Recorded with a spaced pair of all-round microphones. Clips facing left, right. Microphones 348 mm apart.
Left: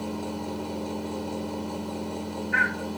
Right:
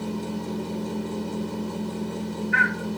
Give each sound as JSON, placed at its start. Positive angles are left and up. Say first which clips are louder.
{"t": 0.0, "sound": "a machine running", "louder": "right 2 dB", "side_deg": -25, "distance_m": 1.2}